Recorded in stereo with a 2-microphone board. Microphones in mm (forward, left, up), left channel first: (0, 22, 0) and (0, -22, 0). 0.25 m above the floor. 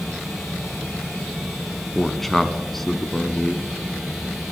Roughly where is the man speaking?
Centre.